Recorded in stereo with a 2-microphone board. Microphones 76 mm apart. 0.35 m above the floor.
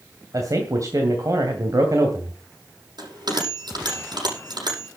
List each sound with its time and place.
0.3 s a man speaking: 45° right (ahead or behind), 2.5 m
3.0 s a bell: 65° right (ahead or behind), 8 m